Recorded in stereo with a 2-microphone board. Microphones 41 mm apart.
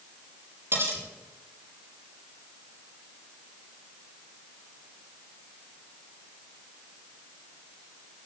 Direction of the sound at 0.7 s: 70° right (ahead or behind).